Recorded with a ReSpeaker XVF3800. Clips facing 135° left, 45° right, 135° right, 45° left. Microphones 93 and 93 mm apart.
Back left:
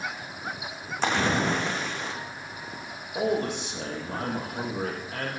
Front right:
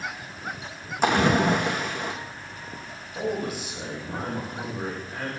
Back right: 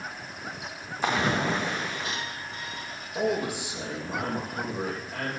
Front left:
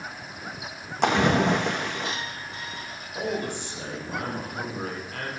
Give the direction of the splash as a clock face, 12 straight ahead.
11 o'clock.